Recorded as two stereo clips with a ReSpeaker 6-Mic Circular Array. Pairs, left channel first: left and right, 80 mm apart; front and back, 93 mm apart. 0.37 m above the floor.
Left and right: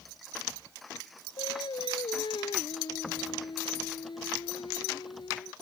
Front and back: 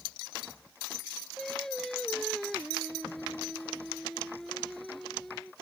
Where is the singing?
85° left.